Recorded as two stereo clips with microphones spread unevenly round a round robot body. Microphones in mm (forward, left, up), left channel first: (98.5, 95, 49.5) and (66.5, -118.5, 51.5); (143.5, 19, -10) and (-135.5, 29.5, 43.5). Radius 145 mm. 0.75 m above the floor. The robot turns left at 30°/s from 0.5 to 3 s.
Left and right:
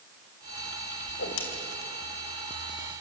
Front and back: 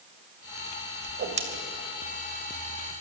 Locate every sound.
1.1 s a whoosh: 130° left, 2.5 m; by 1.4 s 120° left, 2.5 m